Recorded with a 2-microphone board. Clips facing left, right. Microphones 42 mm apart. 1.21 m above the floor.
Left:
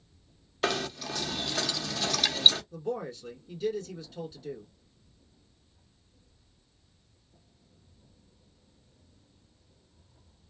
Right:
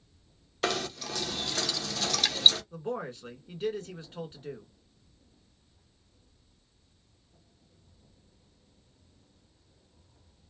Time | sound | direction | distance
0.6 | knocking | 5° left (ahead or behind) | 0.6 m
2.7 | a man speaking | 40° right (ahead or behind) | 1.7 m